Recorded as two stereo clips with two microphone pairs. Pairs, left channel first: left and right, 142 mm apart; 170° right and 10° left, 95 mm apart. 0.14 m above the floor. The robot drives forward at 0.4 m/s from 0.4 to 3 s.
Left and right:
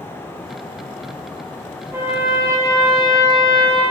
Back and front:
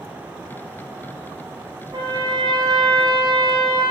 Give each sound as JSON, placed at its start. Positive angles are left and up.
{"t": 1.9, "sound": "a trumpet", "azimuth_deg": -25, "distance_m": 4.0}